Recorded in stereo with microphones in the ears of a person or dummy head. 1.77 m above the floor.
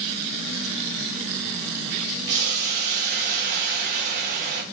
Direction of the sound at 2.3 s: 55° right (ahead or behind).